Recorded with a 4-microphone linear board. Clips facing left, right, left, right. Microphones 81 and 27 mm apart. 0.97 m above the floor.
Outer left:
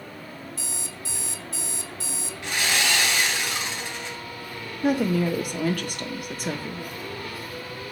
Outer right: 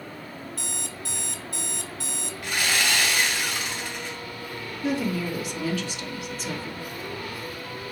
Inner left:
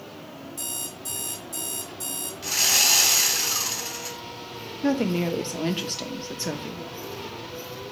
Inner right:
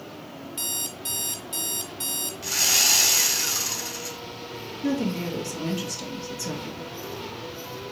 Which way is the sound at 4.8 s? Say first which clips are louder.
Outer left 4 dB, inner left 3 dB; 50° left (ahead or behind).